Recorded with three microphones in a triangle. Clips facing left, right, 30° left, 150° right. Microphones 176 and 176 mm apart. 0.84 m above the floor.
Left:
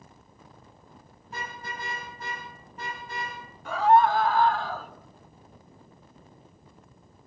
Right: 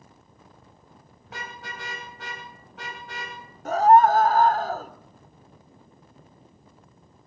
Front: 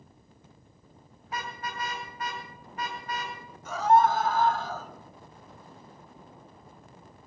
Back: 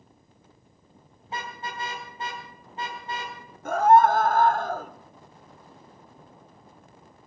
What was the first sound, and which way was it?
A car horn, 85° right.